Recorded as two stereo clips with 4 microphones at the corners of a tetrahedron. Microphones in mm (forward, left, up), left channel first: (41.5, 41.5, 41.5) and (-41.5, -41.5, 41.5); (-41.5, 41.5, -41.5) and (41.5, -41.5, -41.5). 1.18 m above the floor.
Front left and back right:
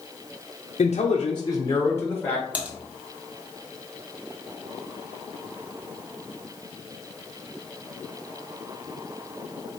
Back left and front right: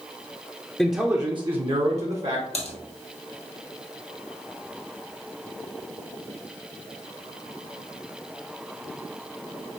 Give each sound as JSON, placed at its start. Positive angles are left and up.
{"t": 0.8, "sound": "a man speaking", "azimuth_deg": 50, "distance_m": 0.5}
{"t": 2.5, "sound": "typing on a keyboard", "azimuth_deg": 150, "distance_m": 1.0}